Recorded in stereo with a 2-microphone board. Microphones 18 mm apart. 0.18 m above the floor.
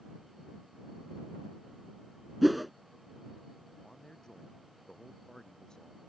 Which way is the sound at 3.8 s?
45° left (ahead or behind).